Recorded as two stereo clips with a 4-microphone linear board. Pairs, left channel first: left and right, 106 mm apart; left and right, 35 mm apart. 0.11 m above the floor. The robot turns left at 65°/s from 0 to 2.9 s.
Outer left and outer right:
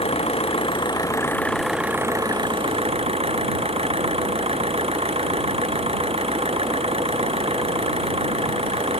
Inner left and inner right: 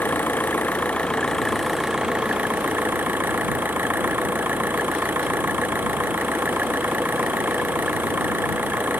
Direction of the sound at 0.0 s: 105° left.